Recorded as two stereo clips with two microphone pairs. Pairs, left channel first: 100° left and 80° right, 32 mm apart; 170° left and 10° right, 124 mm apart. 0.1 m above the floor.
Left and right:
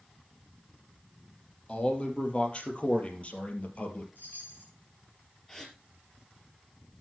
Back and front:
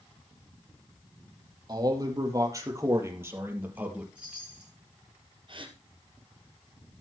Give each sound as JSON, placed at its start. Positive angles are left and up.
{"t": 1.7, "sound": "a man speaking", "azimuth_deg": 40, "distance_m": 3.5}
{"t": 4.2, "sound": "a chime", "azimuth_deg": 70, "distance_m": 2.5}
{"t": 5.5, "sound": "a gasp", "azimuth_deg": 20, "distance_m": 2.5}